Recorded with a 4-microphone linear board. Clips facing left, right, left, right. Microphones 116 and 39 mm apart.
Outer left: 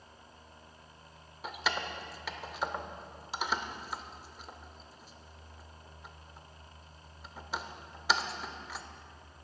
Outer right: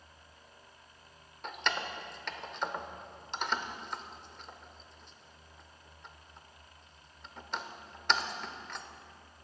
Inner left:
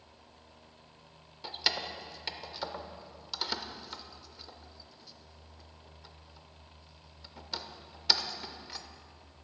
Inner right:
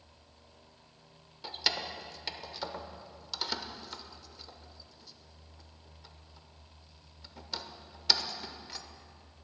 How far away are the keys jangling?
About 0.5 m.